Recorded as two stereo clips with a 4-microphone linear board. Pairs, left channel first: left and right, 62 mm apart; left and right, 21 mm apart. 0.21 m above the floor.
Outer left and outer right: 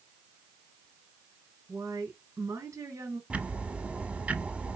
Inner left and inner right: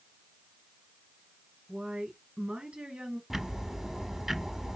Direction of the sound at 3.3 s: 20° right (ahead or behind).